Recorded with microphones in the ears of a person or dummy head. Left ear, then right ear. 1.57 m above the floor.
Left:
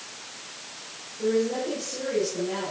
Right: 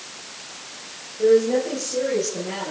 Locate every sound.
1.2 s a woman speaking: 80° right, 10 m